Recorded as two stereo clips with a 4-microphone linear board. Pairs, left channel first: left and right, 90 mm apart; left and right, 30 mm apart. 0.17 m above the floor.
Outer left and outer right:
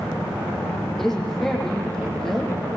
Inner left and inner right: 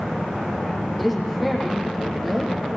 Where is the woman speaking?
5° left (ahead or behind), 5.5 m.